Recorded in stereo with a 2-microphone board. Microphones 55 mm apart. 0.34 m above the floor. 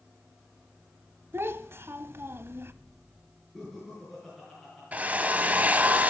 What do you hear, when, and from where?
1.3 s a child speaking: 50° right (ahead or behind), 1.0 m
3.5 s laughter: centre (ahead or behind), 5.5 m
4.9 s a drill: 30° right (ahead or behind), 0.8 m